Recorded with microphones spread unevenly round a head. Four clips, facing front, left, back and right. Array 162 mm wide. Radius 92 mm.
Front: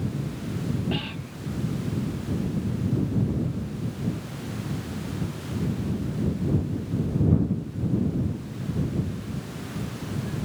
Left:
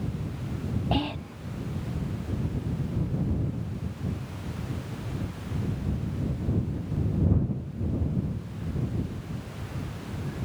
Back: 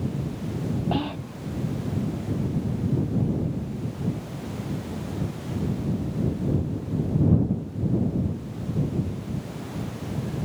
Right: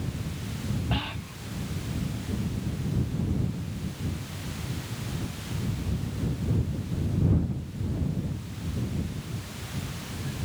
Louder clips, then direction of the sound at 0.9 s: Left 5 dB, back 4 dB; 135° left.